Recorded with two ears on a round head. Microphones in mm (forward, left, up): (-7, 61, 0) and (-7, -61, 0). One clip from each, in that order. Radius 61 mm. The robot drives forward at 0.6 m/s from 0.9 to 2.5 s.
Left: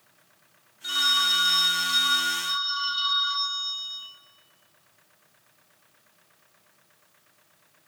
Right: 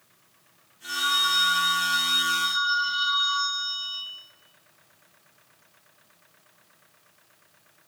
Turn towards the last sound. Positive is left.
turn(degrees=30)  # may be behind; listen again after turning